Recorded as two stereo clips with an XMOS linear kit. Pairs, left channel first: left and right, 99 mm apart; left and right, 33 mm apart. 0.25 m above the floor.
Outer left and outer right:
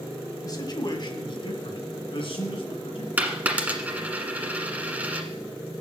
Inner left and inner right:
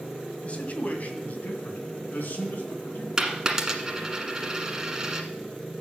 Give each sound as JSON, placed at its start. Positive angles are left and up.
{"t": 0.4, "sound": "a man speaking", "side_deg": 40, "distance_m": 1.8}
{"t": 3.2, "sound": "a dropped coin", "side_deg": -15, "distance_m": 1.4}